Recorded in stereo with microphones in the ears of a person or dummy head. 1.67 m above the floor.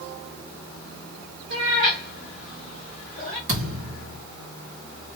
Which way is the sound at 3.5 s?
60° right (ahead or behind).